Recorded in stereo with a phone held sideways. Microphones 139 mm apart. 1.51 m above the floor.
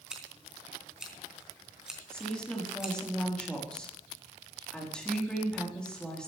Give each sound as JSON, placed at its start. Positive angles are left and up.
{"t": 0.1, "sound": "scissors", "side_deg": -5, "distance_m": 3.5}
{"t": 2.1, "sound": "a woman speaking", "side_deg": 5, "distance_m": 4.0}